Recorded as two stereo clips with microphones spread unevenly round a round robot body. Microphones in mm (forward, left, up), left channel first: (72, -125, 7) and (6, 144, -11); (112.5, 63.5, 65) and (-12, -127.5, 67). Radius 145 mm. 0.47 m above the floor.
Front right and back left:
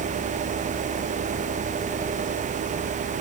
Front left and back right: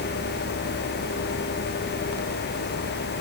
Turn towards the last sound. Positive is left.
No sound to turn to.